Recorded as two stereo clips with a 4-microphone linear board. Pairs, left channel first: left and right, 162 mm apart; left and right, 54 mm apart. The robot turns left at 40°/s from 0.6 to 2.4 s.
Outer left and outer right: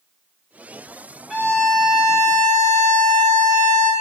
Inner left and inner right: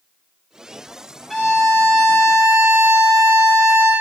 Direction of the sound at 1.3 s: 10° right.